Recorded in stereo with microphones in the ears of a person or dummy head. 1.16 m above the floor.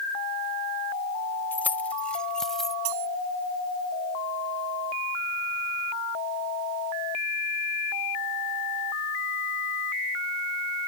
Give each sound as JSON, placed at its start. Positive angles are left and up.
{"t": 1.5, "sound": "keys jangling", "side_deg": 5}
{"t": 2.9, "sound": "cutlery clinking", "side_deg": -85}